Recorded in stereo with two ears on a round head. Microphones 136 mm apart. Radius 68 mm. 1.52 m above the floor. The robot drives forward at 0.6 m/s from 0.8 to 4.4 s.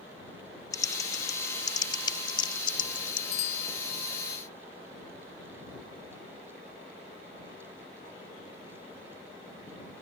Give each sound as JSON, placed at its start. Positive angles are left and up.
{"t": 0.7, "sound": "typing on a keyboard", "side_deg": 25}
{"t": 3.3, "sound": "a bicycle bell", "side_deg": 75}